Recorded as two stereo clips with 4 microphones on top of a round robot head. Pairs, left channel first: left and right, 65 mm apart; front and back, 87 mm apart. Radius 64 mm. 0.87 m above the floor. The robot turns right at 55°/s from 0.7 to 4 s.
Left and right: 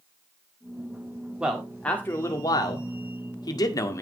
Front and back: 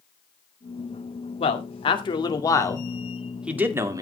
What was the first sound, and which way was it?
A man speaking, 15° right.